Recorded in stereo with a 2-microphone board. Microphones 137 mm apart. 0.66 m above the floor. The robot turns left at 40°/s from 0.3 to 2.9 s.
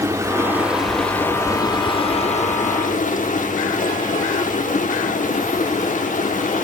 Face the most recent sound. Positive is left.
turn(degrees=100)